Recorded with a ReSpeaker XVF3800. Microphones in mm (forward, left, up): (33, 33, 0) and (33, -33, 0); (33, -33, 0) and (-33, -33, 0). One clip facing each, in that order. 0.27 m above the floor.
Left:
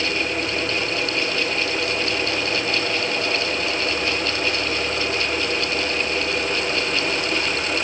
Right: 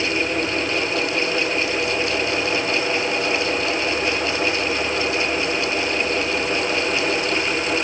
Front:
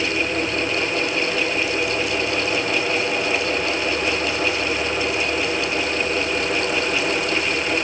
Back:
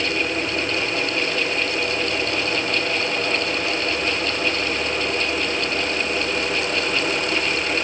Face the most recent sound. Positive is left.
No sound to turn to.